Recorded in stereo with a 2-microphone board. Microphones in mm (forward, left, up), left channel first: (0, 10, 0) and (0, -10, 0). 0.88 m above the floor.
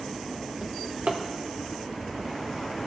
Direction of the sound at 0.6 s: 60° right (ahead or behind).